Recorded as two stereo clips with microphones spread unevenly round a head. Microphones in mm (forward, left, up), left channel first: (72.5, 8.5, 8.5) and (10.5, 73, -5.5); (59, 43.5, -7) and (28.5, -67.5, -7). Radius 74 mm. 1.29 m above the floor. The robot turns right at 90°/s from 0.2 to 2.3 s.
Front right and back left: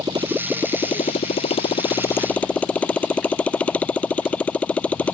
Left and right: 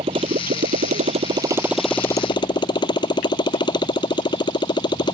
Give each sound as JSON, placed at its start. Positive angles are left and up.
{"t": 0.0, "sound": "a motorcycle", "azimuth_deg": -160}